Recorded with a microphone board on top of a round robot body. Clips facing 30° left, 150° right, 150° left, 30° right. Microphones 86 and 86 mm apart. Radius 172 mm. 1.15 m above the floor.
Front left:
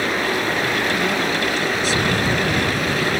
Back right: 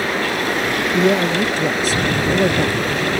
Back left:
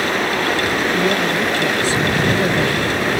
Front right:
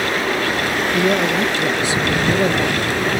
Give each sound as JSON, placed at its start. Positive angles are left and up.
{"t": 0.9, "sound": "a man speaking", "azimuth_deg": -105}